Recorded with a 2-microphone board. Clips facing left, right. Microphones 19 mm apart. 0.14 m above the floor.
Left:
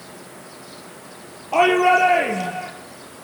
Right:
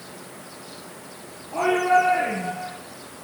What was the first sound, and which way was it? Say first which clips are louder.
A shout: left 4 dB; 65° left (ahead or behind).